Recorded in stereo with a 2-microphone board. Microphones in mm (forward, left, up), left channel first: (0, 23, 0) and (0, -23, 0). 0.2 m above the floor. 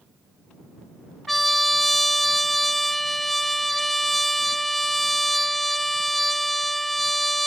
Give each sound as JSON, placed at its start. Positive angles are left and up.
{"t": 1.3, "sound": "a trumpet", "side_deg": 5}